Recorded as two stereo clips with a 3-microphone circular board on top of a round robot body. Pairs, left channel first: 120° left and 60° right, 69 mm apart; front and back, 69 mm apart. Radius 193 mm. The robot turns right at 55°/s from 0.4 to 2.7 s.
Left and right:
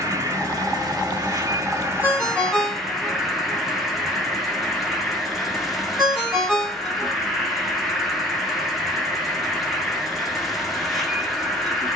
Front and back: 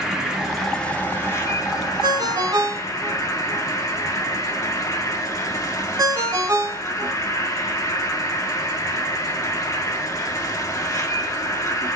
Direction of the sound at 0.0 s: 100° right.